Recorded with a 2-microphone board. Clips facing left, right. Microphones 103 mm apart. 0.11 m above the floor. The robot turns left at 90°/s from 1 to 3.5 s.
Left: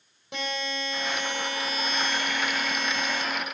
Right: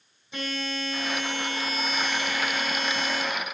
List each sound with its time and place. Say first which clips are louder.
0.3 s a buzzer: even; 75° left, 3 m; by 3.2 s 125° right, 3 m